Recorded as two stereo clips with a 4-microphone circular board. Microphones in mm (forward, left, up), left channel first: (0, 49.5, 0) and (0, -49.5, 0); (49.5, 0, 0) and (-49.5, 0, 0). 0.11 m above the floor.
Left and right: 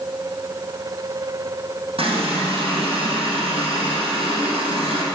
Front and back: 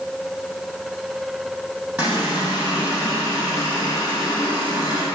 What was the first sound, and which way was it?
A running tap, 105° right.